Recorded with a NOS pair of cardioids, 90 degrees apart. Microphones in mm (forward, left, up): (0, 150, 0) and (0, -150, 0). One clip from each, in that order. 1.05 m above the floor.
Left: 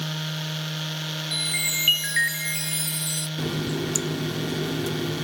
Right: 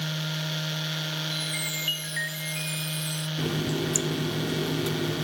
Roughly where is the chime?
Ahead left.